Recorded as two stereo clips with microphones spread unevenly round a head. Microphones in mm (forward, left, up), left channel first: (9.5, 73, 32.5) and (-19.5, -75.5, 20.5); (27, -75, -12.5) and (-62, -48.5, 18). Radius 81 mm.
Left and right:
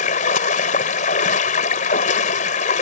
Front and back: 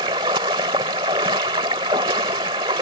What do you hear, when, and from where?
0.0 s running water: 120° left